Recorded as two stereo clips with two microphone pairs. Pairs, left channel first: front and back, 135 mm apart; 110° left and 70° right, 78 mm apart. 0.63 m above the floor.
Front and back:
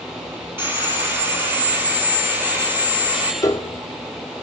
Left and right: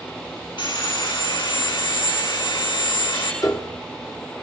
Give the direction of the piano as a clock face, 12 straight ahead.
10 o'clock.